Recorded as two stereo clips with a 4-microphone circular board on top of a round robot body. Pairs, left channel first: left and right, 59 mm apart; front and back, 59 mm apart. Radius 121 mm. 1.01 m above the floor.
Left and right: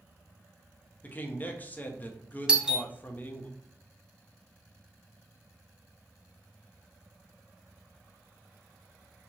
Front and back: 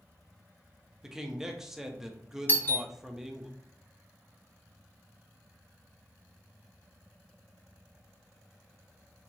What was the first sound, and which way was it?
A man speaking, 105° left.